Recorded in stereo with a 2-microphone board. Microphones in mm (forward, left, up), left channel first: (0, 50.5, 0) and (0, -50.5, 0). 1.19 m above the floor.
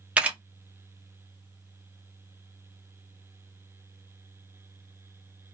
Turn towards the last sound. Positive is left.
turn(degrees=-15)  # may be behind; listen again after turning